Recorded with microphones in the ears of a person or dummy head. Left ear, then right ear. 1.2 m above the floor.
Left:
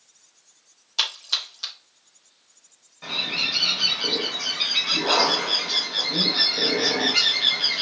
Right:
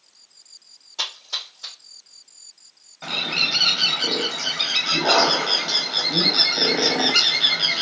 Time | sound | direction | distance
1.0 | a splash | 45° left (ahead or behind) | 1.6 m
3.0 | a bird | 25° right (ahead or behind) | 0.8 m